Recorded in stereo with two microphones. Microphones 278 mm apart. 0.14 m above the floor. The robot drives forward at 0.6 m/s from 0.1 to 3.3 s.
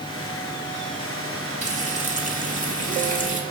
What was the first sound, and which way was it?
Frying, 25° right (ahead or behind).